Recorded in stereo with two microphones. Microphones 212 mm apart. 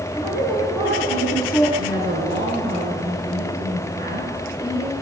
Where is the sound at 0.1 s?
15° right (ahead or behind), 6 m.